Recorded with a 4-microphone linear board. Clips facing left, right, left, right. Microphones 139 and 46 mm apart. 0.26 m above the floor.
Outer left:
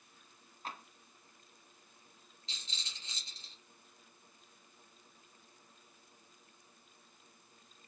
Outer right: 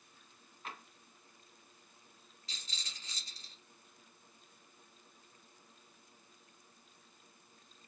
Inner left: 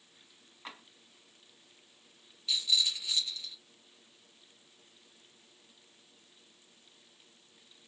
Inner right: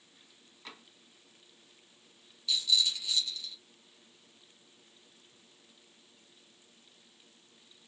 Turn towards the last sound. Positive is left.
turn(degrees=25)  # may be behind; listen again after turning